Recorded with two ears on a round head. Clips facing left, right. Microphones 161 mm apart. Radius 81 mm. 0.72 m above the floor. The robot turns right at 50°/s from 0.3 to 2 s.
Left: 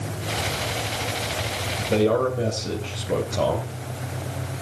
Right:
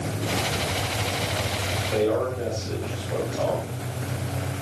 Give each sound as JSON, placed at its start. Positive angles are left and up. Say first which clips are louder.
{"t": 1.8, "sound": "a man speaking", "louder": "left 3 dB", "side_deg": 60, "distance_m": 3.0}